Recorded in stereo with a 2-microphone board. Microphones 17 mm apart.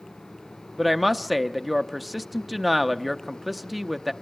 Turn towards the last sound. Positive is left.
turn(degrees=-5)  # may be behind; listen again after turning